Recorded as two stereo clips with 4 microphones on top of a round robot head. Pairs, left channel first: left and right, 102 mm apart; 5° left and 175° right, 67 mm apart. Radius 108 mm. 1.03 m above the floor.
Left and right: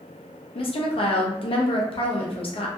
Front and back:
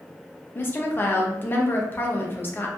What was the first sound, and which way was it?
A woman speaking, 65° left.